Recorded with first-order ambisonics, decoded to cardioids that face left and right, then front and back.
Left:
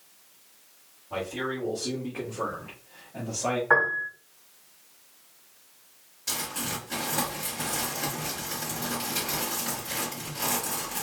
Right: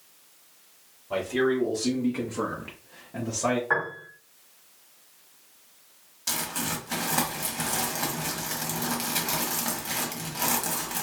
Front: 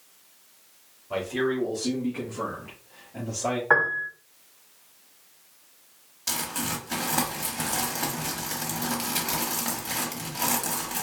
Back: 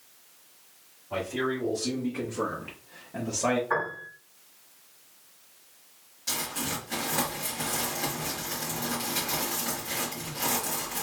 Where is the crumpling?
45° right, 0.9 m.